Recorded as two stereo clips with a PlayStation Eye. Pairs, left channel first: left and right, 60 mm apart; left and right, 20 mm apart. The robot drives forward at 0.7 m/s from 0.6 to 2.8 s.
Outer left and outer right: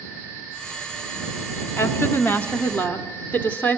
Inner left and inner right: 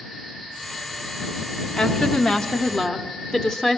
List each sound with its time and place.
1.8 s a woman speaking: 40° left (ahead or behind), 1.2 m; by 3.8 s 30° left (ahead or behind), 1.6 m